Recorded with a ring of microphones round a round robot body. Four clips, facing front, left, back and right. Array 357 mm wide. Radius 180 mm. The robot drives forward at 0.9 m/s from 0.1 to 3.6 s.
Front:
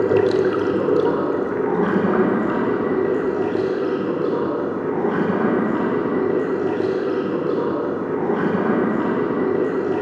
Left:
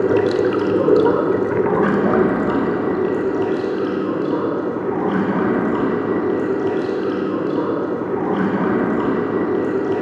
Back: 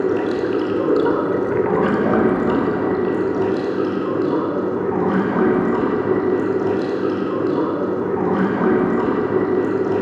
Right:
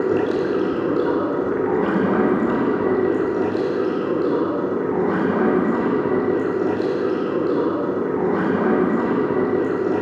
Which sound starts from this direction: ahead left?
Running water, at 0.0 s.